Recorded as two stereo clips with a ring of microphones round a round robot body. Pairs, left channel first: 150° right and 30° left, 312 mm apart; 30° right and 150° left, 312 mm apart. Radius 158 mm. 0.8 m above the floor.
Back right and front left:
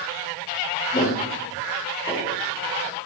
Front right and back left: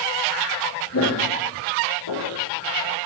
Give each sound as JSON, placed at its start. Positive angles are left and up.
{"t": 0.9, "sound": "footsteps", "azimuth_deg": -85, "distance_m": 3.5}